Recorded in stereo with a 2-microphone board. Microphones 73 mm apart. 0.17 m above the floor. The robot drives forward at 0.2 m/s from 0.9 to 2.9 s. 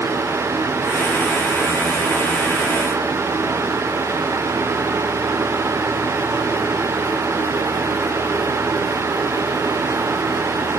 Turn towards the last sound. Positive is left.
No sound to turn to.